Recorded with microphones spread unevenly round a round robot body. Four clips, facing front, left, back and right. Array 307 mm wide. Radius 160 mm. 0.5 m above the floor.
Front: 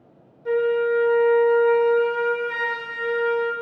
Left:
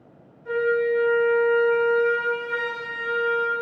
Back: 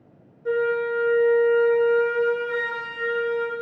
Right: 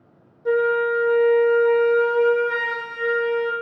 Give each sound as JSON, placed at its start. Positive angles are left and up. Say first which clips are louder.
{"t": 0.5, "sound": "a flute", "louder": "right 3 dB, front 3 dB", "azimuth_deg": -105, "distance_m": 1.0}